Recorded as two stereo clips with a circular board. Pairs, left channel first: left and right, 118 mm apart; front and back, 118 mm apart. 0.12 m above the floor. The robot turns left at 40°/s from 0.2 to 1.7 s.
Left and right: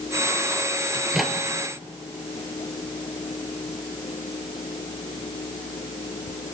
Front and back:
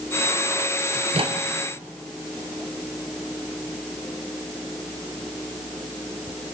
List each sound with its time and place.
0.9 s a microwave: 170° right, 1.6 m; by 1.4 s 175° left, 1.6 m